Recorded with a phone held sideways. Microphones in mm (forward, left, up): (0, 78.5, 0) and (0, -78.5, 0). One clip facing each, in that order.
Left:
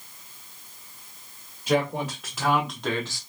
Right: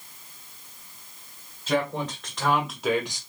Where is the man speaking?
15° left (ahead or behind), 1.7 m; by 3.2 s 20° right (ahead or behind), 0.7 m.